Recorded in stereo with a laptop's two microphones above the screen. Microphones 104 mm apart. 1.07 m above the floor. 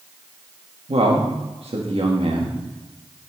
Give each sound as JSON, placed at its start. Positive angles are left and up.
{"t": 0.9, "sound": "a man speaking", "side_deg": -75, "distance_m": 1.6}